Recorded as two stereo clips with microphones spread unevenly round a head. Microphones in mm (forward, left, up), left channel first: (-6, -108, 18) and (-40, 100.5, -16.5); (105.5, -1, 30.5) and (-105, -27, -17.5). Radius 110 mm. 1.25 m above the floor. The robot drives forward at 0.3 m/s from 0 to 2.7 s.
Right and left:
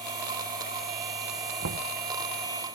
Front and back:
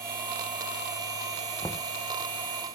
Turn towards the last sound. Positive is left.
turn(degrees=115)